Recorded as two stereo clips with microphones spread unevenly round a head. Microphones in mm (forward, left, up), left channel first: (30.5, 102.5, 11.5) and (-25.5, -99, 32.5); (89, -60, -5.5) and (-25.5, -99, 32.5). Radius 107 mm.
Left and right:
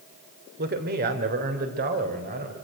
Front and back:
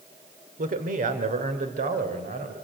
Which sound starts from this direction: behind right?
A man speaking, at 0.6 s.